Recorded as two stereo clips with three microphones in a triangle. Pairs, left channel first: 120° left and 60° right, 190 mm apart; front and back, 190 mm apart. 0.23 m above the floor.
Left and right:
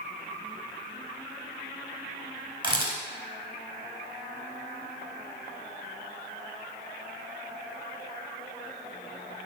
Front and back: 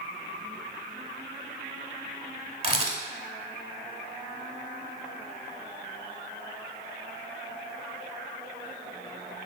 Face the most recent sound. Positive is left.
turn(degrees=-120)